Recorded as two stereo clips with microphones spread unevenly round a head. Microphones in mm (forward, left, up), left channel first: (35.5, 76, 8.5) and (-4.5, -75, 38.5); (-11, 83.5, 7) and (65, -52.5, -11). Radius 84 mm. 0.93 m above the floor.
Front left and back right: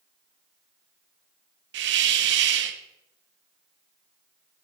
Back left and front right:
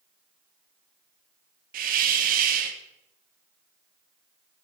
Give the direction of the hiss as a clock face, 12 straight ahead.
3 o'clock.